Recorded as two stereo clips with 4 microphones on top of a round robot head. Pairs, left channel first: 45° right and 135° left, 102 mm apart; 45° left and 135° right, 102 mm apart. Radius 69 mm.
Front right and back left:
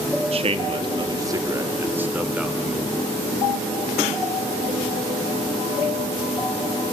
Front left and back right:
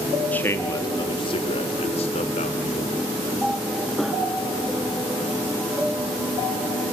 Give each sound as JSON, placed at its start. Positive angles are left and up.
{"t": 0.3, "sound": "a man speaking", "azimuth_deg": 120, "distance_m": 1.6}